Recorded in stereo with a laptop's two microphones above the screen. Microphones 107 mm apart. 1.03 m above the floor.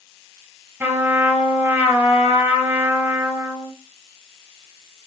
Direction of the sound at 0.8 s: 15° right (ahead or behind).